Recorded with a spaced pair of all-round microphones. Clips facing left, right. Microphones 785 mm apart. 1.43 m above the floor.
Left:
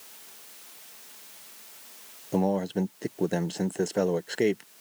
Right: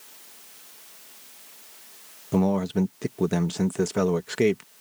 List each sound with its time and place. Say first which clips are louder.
2.3 s a man speaking: right 3 dB; 45° right (ahead or behind)